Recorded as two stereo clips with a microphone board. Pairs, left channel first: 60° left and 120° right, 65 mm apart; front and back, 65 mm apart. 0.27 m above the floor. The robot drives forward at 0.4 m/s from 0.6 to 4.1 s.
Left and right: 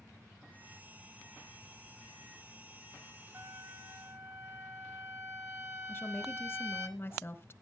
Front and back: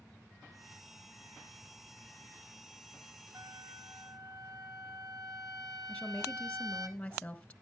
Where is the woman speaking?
60° left, 1.2 m.